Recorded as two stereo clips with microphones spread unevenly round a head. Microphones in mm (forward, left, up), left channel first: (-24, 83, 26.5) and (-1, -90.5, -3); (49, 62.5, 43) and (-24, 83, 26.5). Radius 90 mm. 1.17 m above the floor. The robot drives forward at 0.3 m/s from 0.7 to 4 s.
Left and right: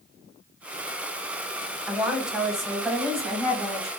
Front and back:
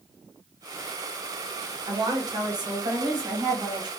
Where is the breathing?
I don't hear breathing.